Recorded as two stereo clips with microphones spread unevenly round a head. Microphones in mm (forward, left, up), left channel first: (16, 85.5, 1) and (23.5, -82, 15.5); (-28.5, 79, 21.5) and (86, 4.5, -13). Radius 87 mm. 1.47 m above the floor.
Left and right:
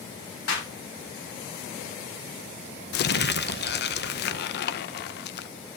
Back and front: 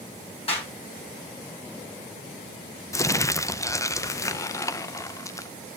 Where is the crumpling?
75° left, 0.6 m.